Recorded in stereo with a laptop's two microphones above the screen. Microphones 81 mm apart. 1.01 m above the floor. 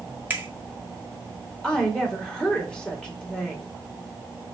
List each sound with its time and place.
0.3 s a finger snap: 20° right (ahead or behind), 1.0 m
1.6 s a woman speaking: 10° left (ahead or behind), 1.8 m